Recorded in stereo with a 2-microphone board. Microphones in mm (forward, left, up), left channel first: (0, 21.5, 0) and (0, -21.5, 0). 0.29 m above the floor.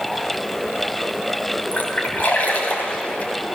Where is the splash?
40° left (ahead or behind), 2 m.